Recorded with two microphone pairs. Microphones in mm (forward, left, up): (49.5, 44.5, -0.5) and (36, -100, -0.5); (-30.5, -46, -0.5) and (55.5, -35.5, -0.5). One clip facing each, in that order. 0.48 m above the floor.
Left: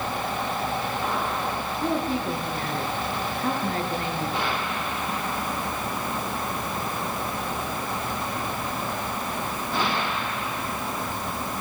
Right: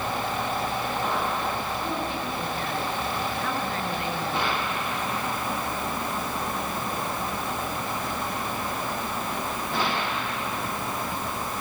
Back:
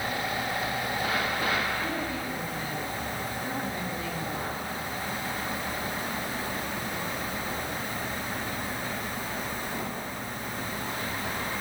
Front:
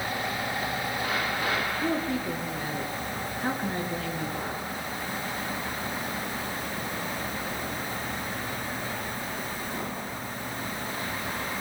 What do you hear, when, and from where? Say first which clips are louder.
1.8 s a woman speaking: left 4 dB, front 4 dB; 30° left, 7 m